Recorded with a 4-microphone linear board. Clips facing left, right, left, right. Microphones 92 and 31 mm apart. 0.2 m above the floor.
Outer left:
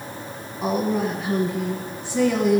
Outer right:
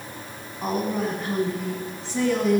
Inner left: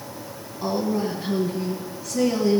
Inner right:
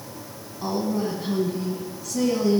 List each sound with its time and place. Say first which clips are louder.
0.6 s a woman speaking: outer left 3 dB, inner left 1 dB; 10° left (ahead or behind), 1.4 m